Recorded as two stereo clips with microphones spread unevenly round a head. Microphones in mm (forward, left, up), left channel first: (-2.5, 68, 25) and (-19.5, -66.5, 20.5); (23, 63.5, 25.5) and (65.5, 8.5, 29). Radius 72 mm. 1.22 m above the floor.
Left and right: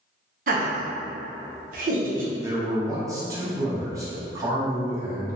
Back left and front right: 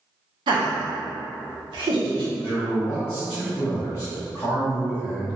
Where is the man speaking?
165° right, 0.8 m.